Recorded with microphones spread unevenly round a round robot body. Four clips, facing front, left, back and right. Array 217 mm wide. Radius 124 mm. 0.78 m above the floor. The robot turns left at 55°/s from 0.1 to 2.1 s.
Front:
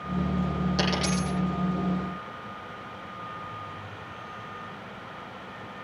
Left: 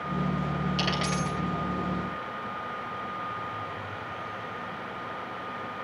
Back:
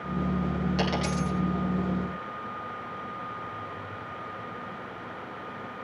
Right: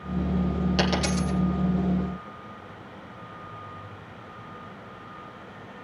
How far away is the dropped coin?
About 9 m.